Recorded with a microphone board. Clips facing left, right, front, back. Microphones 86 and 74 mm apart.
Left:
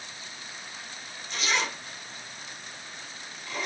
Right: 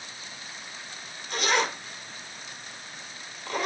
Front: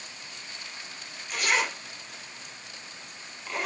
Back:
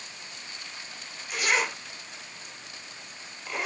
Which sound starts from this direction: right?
A zipper, at 1.3 s.